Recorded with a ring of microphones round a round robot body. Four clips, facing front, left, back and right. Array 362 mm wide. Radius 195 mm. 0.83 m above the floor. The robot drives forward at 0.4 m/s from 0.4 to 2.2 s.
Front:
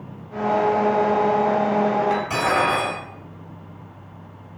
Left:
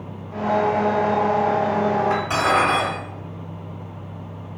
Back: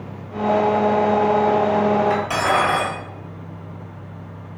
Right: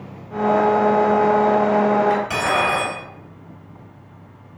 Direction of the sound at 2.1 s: 155° right.